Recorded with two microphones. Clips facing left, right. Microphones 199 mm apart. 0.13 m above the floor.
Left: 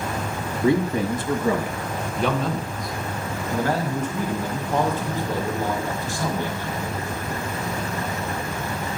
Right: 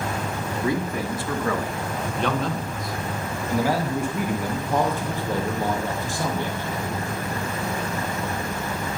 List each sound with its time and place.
0.6 s a man speaking: 25° left (ahead or behind), 1.3 m; by 7.0 s 20° right (ahead or behind), 3.5 m